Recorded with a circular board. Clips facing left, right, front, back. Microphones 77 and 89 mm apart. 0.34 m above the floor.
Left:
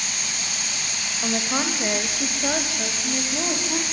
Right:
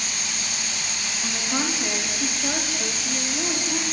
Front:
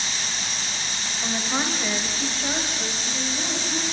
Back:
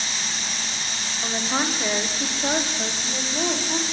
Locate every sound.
1.2 s a woman speaking: 100° left, 1.6 m; by 3.8 s 145° left, 2.5 m